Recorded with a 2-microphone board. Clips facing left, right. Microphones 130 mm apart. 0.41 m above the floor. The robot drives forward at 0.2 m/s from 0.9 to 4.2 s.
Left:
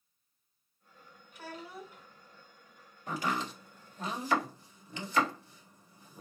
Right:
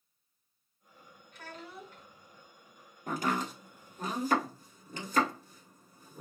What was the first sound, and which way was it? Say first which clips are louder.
A child speaking: left 2 dB; 10° left (ahead or behind).